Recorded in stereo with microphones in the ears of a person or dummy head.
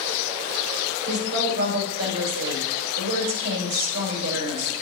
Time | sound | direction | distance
1.1 | a woman speaking | 75° right (ahead or behind) | 4 m